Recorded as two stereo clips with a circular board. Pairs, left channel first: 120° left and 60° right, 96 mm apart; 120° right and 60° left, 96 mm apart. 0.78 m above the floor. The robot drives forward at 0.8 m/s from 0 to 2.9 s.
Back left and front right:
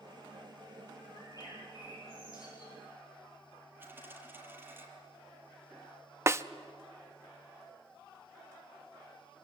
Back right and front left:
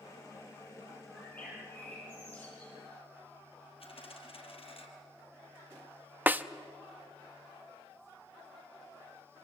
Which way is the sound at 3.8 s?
130° right.